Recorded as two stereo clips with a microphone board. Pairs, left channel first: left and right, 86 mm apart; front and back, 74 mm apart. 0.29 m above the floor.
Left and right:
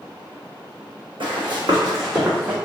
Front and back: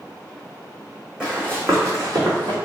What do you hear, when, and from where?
1.2 s running footsteps: 105° right, 1.3 m; by 2.5 s 160° right, 1.5 m